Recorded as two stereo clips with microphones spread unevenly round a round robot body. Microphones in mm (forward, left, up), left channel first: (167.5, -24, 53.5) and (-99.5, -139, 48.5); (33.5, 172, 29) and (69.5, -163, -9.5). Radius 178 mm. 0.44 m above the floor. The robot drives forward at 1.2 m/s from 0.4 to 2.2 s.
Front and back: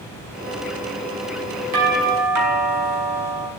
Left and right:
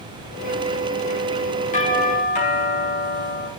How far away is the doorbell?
About 5.5 m.